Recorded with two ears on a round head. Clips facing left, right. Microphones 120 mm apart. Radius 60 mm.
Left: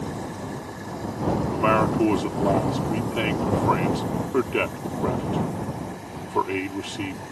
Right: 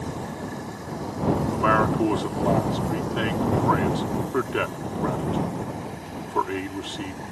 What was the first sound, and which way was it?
A man speaking, 10° left (ahead or behind).